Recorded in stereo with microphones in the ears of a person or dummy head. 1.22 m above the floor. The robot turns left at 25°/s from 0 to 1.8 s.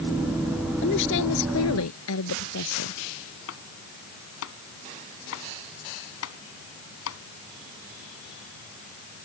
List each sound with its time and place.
0.8 s a woman speaking: 65° left (ahead or behind); by 3.0 s 90° left
3.5 s chopping: 80° left